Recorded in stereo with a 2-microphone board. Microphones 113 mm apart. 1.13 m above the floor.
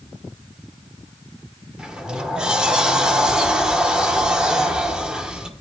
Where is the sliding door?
5° right (ahead or behind), 1.0 m.